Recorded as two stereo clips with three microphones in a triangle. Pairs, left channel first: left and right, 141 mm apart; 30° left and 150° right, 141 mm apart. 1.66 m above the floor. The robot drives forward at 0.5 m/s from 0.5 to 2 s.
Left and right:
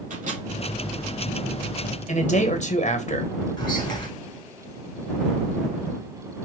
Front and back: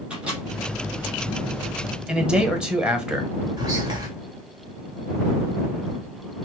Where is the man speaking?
125° left, 1.1 m.